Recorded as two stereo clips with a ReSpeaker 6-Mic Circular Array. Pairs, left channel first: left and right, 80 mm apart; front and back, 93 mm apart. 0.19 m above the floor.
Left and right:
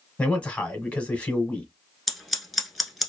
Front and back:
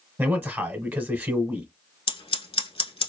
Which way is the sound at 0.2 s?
140° left.